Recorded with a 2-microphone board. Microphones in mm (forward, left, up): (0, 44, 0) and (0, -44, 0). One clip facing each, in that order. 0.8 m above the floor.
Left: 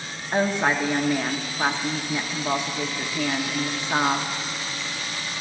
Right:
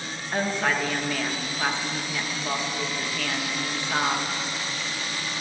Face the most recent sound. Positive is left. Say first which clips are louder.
# left 3 dB
turn(degrees=20)  # may be behind; listen again after turning